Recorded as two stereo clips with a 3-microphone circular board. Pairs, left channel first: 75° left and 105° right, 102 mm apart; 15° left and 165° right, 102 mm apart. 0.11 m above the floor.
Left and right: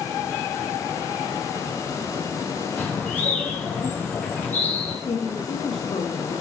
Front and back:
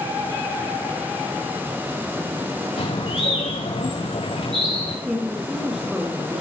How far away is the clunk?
No clunk in this recording.